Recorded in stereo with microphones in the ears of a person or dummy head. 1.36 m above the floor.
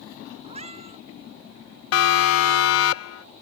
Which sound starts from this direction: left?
A siren, at 1.9 s.